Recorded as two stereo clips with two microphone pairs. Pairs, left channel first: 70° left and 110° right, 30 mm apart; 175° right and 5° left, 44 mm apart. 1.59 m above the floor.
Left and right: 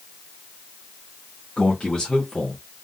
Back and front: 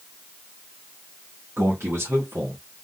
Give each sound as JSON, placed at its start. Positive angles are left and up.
{"t": 1.6, "sound": "a man speaking", "azimuth_deg": 5, "distance_m": 1.6}